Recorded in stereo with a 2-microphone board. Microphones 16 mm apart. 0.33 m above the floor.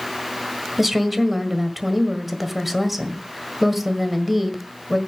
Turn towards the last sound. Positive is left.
turn(degrees=-5)  # may be behind; listen again after turning